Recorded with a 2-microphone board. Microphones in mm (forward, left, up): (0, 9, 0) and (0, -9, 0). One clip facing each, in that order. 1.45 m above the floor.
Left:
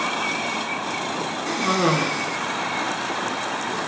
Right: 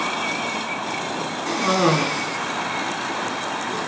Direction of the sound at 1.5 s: 5° right (ahead or behind).